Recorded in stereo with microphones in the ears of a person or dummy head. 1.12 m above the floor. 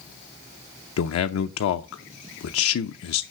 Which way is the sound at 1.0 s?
80° left.